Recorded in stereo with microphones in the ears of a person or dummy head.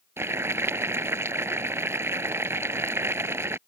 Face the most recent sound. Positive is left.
turn(degrees=-15)  # may be behind; listen again after turning